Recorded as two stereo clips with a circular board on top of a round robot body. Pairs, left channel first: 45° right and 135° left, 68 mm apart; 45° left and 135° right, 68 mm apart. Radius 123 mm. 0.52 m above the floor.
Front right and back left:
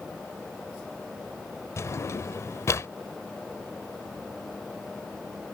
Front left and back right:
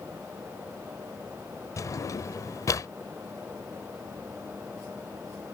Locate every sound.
1.8 s a drawer: 5° left